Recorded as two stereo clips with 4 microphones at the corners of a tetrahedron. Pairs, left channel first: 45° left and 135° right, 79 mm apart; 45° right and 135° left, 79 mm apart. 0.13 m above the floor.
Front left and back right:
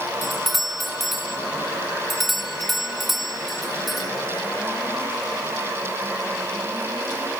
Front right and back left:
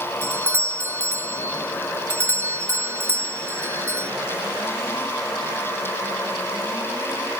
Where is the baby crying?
I don't hear a baby crying.